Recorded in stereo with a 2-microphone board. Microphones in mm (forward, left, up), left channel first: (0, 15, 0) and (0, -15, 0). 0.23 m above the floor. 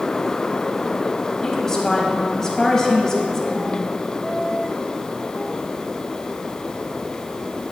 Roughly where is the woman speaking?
Centre.